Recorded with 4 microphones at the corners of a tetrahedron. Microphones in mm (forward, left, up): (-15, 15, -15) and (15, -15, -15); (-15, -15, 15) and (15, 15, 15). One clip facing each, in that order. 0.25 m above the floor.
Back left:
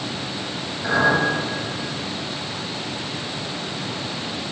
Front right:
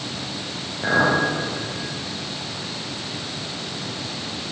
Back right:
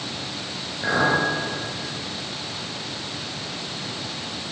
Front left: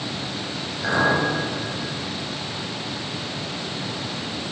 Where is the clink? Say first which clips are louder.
Even, even; 75° right, 3 m.